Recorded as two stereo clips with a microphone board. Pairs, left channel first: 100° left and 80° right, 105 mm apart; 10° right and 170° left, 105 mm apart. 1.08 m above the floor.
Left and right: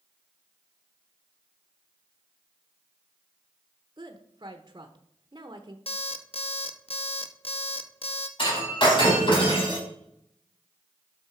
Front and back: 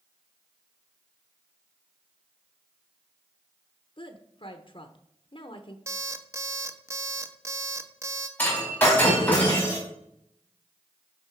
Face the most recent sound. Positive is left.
turn(degrees=60)